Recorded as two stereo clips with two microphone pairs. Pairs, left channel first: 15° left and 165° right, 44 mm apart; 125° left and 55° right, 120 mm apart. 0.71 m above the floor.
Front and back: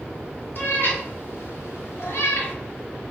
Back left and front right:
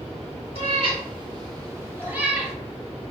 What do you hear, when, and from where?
0.6 s a cat meowing: 20° right, 1.4 m; by 2.5 s 30° left, 1.0 m